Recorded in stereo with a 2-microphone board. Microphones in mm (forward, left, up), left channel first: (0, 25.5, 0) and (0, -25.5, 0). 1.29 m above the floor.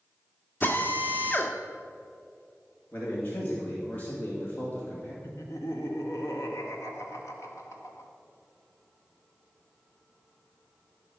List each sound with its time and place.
0.6 s a drill: 40° left (ahead or behind), 1.3 m
2.9 s a man speaking: 35° left (ahead or behind), 2.5 m
5.2 s laughter: 75° left (ahead or behind), 1.8 m